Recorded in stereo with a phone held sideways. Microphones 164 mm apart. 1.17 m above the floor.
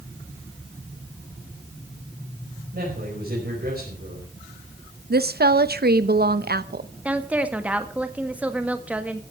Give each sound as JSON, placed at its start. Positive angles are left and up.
{"t": 2.7, "sound": "a man speaking", "side_deg": -85, "distance_m": 5.0}
{"t": 5.1, "sound": "a woman speaking", "side_deg": -90, "distance_m": 0.8}
{"t": 7.0, "sound": "a woman speaking", "side_deg": -10, "distance_m": 1.6}